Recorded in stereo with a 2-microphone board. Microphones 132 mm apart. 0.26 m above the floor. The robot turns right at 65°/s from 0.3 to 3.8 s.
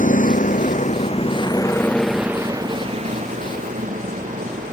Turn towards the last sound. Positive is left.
turn(degrees=-85)